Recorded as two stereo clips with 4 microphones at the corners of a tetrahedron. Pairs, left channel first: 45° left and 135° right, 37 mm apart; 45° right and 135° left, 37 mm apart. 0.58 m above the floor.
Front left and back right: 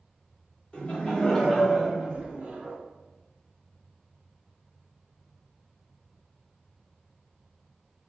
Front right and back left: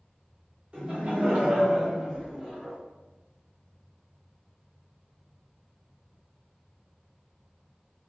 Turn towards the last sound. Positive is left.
turn(degrees=-145)